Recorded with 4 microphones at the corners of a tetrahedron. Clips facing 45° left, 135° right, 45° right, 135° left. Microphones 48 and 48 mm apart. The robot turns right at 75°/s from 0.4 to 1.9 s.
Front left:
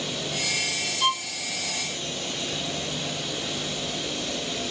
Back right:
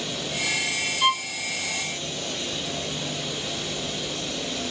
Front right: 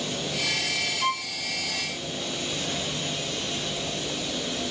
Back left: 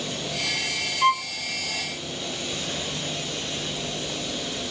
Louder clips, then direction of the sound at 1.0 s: Back right 2 dB, back left 9 dB; 150° left.